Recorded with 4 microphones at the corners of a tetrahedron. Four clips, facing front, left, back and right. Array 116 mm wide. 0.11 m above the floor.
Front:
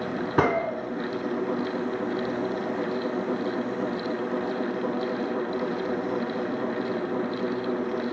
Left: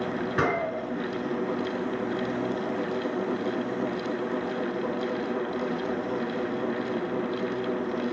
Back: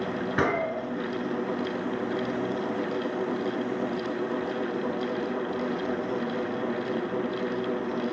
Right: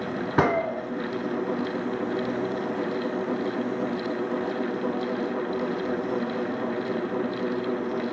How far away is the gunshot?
About 0.9 m.